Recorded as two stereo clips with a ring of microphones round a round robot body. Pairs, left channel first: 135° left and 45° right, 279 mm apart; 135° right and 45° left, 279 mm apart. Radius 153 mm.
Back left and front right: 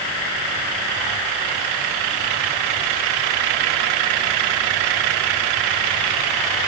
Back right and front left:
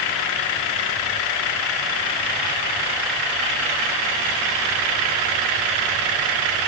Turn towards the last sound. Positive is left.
No sound to turn to.